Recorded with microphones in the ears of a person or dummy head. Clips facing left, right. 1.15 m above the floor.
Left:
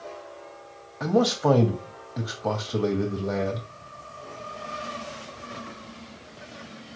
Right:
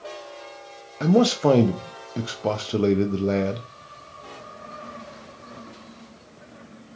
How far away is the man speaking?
About 0.5 m.